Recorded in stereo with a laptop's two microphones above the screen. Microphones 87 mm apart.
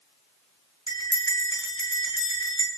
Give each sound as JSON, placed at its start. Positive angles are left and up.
{"t": 0.9, "sound": "a bell", "side_deg": 55, "distance_m": 7.0}